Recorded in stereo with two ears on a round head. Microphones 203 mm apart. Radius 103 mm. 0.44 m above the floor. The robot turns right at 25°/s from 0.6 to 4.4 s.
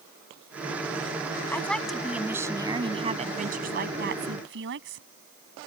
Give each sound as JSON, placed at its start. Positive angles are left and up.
{"t": 1.5, "sound": "a woman speaking", "azimuth_deg": 170}